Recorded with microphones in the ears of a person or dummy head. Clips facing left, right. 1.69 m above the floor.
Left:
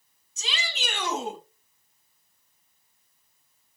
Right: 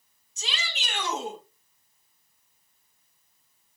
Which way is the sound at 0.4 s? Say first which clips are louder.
Left 2 dB; 75° left (ahead or behind).